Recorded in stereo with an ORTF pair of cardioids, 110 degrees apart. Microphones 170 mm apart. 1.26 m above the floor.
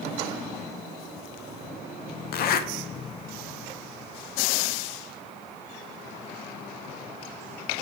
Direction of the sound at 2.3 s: 65° left.